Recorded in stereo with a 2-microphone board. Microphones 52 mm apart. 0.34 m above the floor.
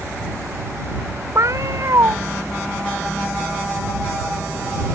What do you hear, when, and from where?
1.4 s a cat meowing: 65° right (ahead or behind)